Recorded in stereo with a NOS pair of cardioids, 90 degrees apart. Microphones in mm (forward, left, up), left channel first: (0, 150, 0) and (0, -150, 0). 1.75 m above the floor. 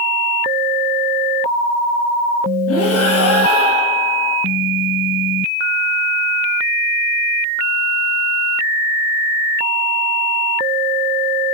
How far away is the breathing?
About 8.5 m.